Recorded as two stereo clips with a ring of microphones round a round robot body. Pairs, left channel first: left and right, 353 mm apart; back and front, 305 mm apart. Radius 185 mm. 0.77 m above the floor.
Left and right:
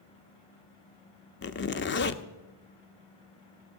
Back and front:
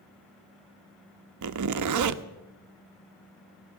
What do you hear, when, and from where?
1.4 s a zipper: 30° left, 0.8 m